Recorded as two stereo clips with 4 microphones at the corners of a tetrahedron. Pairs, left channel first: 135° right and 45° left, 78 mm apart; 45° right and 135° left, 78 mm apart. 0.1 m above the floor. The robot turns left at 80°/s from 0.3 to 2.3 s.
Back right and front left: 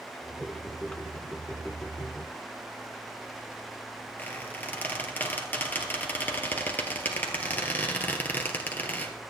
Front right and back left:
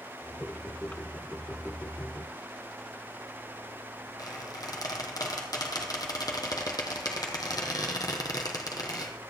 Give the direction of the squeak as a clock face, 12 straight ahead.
2 o'clock.